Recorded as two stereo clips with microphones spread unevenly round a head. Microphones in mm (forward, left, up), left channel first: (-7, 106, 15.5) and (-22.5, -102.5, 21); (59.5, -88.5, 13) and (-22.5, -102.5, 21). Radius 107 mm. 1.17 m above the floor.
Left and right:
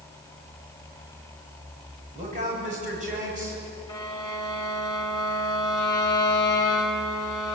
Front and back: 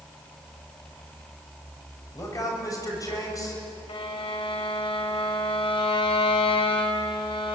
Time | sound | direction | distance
2.1 | a man speaking | 35° right | 7.5 m
3.9 | a violin | 15° left | 2.5 m